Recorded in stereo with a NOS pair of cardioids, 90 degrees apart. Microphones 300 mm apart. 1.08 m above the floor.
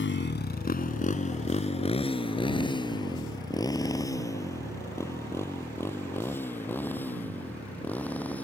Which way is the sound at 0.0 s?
40° left.